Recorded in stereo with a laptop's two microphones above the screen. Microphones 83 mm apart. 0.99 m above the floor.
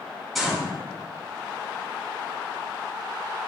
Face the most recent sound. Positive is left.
turn(degrees=0)  # may be behind; listen again after turning